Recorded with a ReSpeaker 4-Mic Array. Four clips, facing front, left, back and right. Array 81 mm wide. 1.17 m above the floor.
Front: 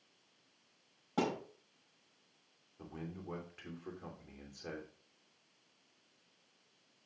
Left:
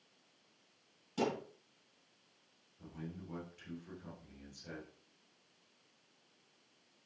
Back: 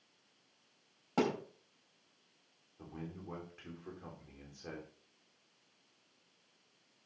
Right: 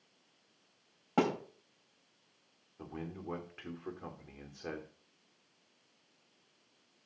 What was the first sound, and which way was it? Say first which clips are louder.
A thud: right 5 dB, back 2 dB; 105° right.